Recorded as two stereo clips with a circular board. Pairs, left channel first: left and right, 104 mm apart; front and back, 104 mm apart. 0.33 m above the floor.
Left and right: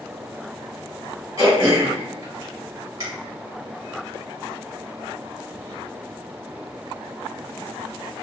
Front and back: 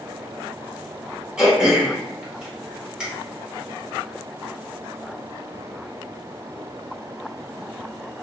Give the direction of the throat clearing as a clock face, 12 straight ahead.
3 o'clock.